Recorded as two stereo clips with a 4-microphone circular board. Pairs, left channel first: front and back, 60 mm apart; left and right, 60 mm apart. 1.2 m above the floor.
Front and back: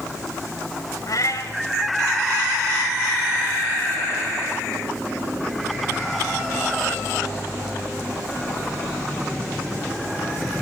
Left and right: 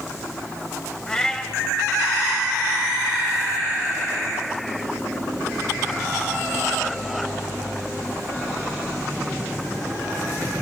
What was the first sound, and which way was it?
A cat meowing, 15° left.